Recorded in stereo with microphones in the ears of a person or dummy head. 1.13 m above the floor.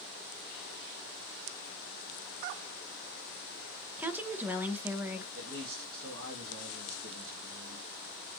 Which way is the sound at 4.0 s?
10° right (ahead or behind).